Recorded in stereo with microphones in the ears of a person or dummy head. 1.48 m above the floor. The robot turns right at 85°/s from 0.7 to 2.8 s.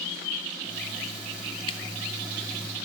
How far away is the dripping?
About 0.9 m.